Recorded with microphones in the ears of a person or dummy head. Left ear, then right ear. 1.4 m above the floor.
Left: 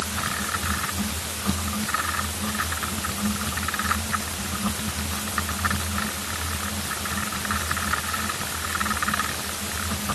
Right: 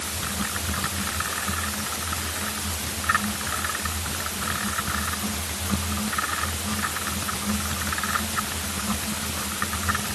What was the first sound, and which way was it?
Only background noise.